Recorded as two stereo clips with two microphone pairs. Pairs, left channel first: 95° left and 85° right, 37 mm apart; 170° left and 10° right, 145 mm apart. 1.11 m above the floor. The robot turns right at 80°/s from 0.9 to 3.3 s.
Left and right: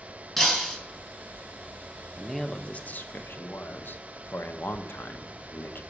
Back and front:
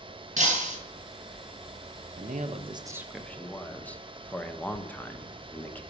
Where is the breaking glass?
15° left, 3 m.